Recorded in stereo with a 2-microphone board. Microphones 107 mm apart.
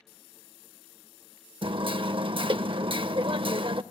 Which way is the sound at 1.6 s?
55° right (ahead or behind).